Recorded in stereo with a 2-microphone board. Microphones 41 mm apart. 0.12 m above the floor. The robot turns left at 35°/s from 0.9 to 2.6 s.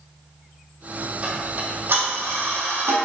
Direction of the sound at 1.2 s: 30° right (ahead or behind).